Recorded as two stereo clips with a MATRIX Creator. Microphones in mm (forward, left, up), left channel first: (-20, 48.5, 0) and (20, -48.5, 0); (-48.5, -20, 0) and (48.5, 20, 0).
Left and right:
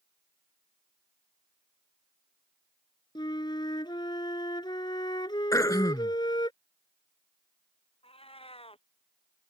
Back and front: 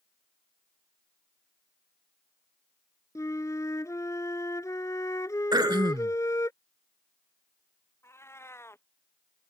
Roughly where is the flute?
Behind left.